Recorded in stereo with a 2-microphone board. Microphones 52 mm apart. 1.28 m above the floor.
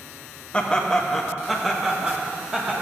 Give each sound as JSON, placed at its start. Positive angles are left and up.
{"t": 0.5, "sound": "laughter", "side_deg": 20, "distance_m": 1.1}